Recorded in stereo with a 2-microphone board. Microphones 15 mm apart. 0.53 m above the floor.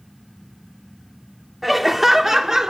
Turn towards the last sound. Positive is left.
turn(degrees=-35)  # may be behind; listen again after turning